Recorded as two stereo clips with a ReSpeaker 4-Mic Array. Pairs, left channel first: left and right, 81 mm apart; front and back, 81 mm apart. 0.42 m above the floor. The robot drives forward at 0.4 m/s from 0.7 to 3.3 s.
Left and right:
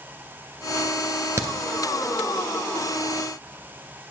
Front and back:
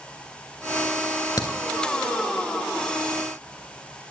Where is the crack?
40° right, 1.7 m.